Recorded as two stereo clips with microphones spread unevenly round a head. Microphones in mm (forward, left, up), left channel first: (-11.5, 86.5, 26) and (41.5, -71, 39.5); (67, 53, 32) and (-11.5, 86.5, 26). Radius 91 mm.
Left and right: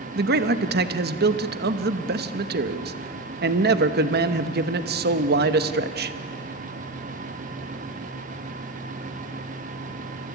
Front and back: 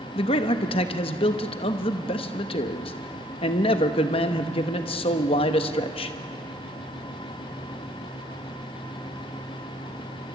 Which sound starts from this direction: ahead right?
A man speaking, at 0.1 s.